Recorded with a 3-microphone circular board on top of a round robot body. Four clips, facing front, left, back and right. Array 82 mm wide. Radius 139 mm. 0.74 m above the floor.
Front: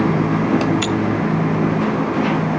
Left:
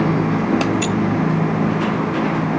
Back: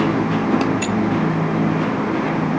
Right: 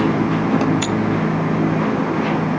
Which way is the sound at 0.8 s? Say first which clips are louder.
Even, front 1 dB; 45° left.